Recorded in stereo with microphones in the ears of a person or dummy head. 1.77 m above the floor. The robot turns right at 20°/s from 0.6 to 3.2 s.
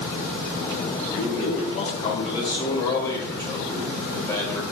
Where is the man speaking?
125° left, 1.2 m; by 4.6 s 165° left, 1.2 m.